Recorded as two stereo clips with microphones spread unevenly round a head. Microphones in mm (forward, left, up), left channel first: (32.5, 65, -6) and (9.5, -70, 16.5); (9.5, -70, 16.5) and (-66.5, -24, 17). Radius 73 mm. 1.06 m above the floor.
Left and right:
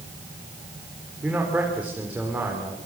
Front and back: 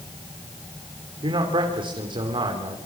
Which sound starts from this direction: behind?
A man speaking, at 1.2 s.